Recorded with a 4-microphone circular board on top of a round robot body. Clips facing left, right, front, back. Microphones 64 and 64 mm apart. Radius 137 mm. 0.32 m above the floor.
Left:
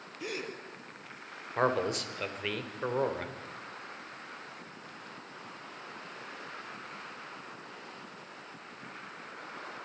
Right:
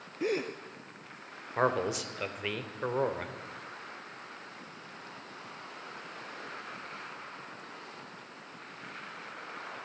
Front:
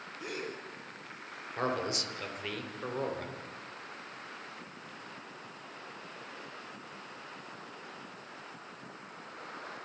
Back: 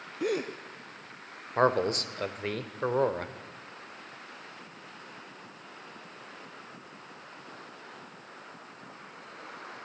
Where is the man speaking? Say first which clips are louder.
Even, back 8 dB; 175° right, 1.9 m.